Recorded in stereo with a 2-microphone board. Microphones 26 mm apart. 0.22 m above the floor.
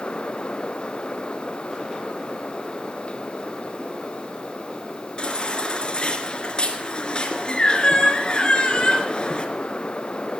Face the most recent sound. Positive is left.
turn(degrees=35)  # may be behind; listen again after turning